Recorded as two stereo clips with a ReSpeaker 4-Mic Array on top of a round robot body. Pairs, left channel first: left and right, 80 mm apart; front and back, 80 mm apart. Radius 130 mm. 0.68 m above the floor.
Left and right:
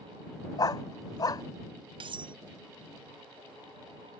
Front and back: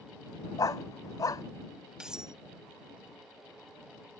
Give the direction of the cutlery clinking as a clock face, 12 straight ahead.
3 o'clock.